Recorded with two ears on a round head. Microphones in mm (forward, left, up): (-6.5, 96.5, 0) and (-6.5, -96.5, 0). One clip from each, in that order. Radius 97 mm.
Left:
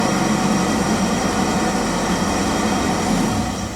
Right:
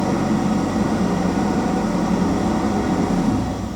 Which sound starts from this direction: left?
An engine running, at 0.0 s.